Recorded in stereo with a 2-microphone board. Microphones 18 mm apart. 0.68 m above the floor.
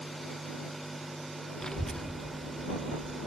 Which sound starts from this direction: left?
A child speaking, at 1.6 s.